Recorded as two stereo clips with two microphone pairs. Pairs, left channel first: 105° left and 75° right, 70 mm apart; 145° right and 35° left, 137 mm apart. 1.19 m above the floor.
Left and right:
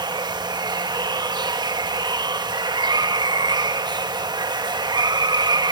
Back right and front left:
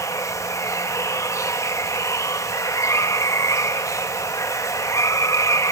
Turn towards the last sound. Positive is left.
turn(degrees=-80)